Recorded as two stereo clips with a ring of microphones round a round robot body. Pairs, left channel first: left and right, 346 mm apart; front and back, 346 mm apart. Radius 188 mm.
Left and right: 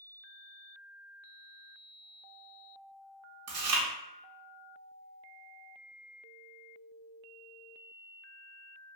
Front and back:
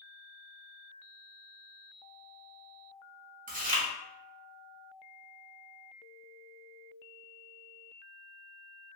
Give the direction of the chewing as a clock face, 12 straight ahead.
4 o'clock.